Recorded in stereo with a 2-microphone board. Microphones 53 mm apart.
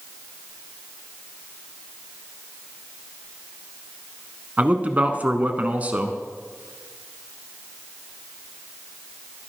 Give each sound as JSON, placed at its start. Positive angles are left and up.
{"t": 4.6, "sound": "a man speaking", "side_deg": -30, "distance_m": 1.2}